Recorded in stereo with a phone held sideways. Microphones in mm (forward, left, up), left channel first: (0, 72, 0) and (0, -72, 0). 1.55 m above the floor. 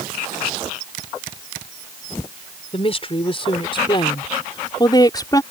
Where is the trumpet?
I don't hear a trumpet.